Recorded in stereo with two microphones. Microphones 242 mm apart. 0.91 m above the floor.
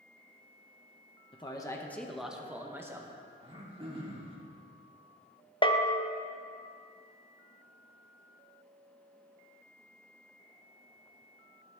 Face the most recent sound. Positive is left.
turn(degrees=20)  # may be behind; listen again after turning